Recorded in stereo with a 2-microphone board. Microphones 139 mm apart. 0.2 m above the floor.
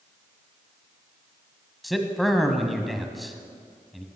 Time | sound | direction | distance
1.8 | a man speaking | centre (ahead or behind) | 1.3 m